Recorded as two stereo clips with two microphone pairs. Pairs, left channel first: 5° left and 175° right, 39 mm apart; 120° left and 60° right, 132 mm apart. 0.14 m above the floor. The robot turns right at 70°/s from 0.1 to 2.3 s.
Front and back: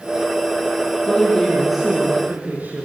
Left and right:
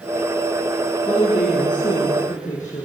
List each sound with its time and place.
1.1 s a woman speaking: 55° left, 5.5 m; by 2.9 s 140° left, 5.5 m